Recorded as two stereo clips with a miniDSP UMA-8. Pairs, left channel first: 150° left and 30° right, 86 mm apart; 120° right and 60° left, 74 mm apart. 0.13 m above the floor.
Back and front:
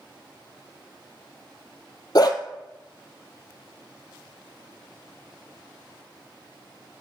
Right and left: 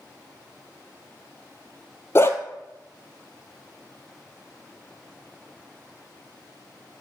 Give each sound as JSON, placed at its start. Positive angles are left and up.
{"t": 2.1, "sound": "a dog barking", "azimuth_deg": -175, "distance_m": 1.3}